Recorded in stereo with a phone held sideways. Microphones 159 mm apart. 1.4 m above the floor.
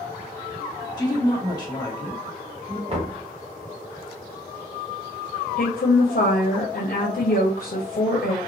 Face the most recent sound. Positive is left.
turn(degrees=85)